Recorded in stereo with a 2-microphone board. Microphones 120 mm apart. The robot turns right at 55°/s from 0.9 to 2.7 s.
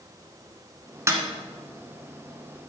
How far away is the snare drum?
About 1.6 m.